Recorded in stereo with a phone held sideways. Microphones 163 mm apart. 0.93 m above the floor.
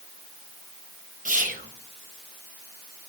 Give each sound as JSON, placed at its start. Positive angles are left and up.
{"t": 1.2, "sound": "whispering", "side_deg": -55, "distance_m": 0.9}